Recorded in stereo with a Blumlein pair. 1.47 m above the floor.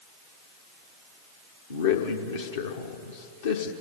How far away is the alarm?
No alarm in this recording.